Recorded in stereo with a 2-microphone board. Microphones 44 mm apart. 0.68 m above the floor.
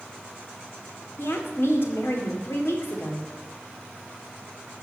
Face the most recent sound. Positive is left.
turn(degrees=65)  # may be behind; listen again after turning